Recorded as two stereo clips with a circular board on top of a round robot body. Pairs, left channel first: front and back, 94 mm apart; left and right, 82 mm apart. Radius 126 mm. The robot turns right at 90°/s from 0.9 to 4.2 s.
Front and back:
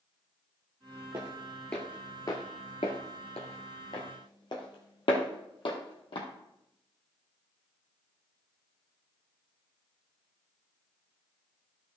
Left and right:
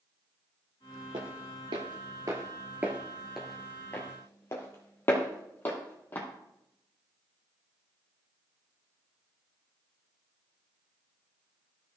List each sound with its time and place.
1.1 s footsteps: 120° right, 1.5 m; by 6.3 s 25° left, 2.5 m